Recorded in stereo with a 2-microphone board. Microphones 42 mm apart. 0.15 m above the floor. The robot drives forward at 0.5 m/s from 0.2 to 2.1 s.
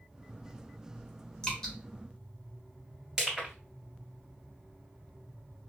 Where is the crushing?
5° right (ahead or behind), 2 m.